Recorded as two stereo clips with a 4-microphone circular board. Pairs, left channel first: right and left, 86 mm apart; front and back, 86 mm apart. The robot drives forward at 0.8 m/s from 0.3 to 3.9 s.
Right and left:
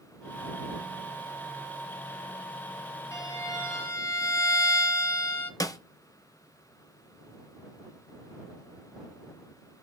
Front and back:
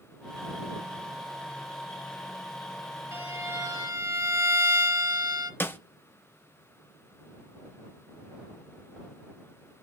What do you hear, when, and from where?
3.1 s a violin: 130° right, 1.7 m; by 5.5 s 145° right, 2 m
5.6 s a snare drum: 55° right, 0.7 m